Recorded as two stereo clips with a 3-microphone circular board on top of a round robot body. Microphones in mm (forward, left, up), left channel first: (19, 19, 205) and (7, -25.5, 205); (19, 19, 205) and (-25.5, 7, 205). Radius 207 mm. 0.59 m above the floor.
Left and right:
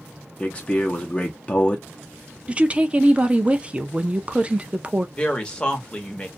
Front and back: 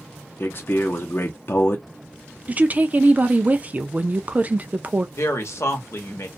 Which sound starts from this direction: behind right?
A woman speaking, at 2.5 s.